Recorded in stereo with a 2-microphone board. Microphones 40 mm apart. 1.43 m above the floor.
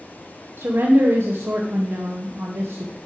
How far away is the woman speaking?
About 0.9 m.